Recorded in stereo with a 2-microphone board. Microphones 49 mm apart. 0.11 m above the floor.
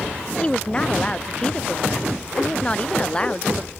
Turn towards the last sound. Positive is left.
turn(degrees=20)  # may be behind; listen again after turning